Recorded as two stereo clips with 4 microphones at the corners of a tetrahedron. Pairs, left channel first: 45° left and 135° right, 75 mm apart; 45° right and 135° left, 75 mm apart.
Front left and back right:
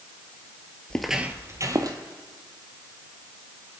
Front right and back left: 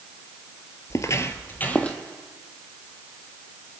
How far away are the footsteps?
About 0.8 m.